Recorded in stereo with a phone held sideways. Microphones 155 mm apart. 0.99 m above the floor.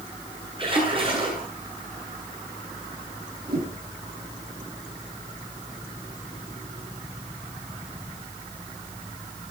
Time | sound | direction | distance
0.6 | a splash | 35° right (ahead or behind) | 8 m
3.5 | a whoosh | 85° right | 9 m